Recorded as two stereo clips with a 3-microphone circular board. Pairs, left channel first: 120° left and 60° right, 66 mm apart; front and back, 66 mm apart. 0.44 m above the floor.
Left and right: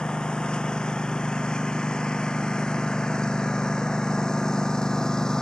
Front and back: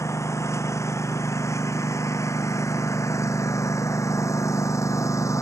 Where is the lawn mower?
40° left.